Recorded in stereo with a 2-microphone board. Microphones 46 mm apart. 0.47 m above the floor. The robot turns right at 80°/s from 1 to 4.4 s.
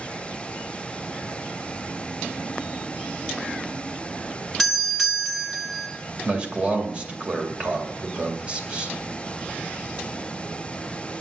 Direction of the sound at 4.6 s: 5° left (ahead or behind).